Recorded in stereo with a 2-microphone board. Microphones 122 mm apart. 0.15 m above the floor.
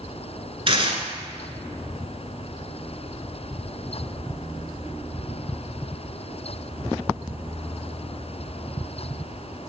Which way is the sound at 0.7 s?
50° right (ahead or behind).